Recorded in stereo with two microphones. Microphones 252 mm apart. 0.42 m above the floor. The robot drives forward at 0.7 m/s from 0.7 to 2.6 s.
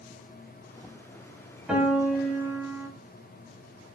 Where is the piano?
5° right (ahead or behind), 1.9 m.